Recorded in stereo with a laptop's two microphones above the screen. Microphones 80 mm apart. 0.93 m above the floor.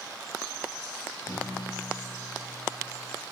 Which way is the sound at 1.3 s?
60° left (ahead or behind).